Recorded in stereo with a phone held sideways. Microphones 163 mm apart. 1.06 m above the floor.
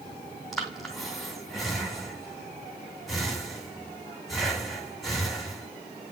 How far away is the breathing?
About 2.5 m.